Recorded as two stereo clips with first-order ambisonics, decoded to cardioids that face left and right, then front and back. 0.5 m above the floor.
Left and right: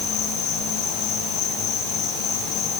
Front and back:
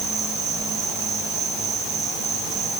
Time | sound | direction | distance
0.0 | an insect | 135° left | 6 m